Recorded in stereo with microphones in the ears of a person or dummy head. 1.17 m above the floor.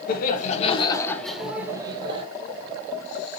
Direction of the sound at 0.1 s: 60° left (ahead or behind).